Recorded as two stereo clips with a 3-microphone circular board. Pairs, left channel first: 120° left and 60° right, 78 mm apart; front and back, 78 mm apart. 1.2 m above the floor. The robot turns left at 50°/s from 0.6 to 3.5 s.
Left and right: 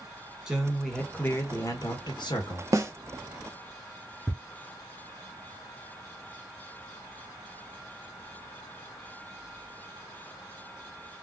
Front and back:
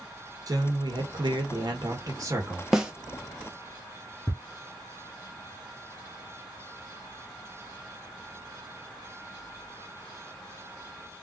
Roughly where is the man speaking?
Behind right.